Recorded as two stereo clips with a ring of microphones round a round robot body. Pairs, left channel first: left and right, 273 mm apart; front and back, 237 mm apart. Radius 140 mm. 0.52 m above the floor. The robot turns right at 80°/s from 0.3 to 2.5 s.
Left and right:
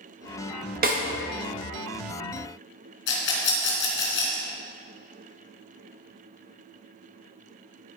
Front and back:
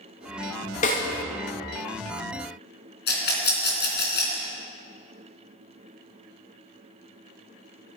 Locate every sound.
0.8 s a snare drum: 45° right, 1.4 m; by 1.0 s 30° right, 1.4 m
3.1 s a rattle: 40° left, 3 m